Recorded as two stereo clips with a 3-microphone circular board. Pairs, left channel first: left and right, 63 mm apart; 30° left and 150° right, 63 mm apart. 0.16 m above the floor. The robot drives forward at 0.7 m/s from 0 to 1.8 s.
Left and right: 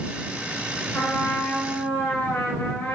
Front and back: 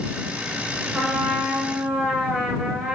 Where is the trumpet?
140° left, 1.5 m; by 3.0 s 155° left, 1.9 m.